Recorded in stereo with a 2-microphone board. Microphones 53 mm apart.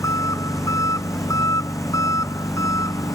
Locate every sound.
0.0 s an engine running: 85° left